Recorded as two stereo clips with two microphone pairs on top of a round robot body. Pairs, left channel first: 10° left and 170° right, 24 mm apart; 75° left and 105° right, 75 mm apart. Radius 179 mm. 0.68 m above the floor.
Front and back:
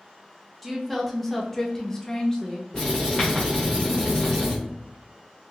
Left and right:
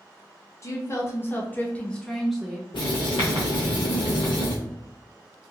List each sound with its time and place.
0.6 s a woman speaking: 100° left, 1.2 m; by 2.6 s 20° right, 1.0 m
2.7 s writing: 80° left, 0.8 m